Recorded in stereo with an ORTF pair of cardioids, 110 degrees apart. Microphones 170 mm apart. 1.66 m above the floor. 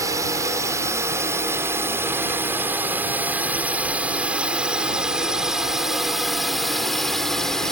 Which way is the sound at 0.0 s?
20° right.